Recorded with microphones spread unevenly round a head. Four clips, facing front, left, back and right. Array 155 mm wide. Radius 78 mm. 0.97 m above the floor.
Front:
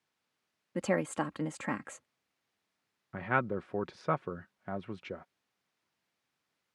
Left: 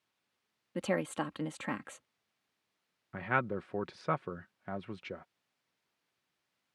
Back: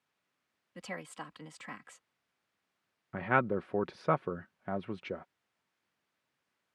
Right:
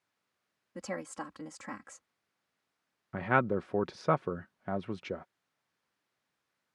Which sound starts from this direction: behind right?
A man speaking, at 3.1 s.